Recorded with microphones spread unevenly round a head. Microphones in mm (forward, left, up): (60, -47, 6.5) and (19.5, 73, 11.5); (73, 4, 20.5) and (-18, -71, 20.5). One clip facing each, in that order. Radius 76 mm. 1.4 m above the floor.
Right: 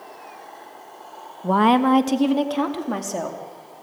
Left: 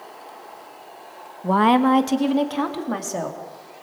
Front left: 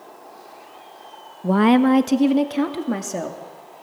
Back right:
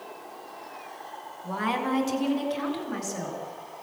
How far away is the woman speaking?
About 0.9 m.